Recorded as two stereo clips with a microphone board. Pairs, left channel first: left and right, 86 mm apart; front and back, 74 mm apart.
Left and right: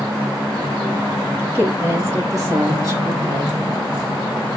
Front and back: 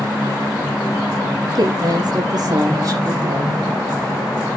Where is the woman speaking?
155° right, 4 m; by 3.6 s 130° right, 4 m.